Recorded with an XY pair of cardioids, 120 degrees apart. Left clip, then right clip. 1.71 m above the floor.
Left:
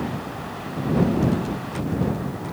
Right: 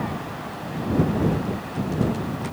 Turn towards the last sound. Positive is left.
No sound to turn to.